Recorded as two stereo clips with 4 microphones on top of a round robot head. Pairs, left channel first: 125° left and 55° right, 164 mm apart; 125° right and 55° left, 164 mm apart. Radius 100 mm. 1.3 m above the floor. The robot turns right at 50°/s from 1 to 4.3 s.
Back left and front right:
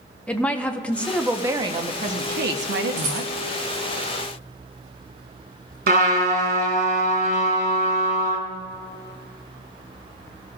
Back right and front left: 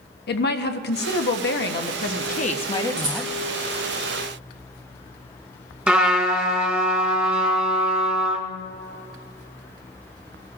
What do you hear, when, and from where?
0.3 s a woman speaking: 150° right, 1.0 m; by 3.3 s 35° right, 1.0 m
3.0 s a rattle: 10° right, 2.5 m; by 3.3 s straight ahead, 2.5 m
5.9 s a trumpet: 25° right, 2.5 m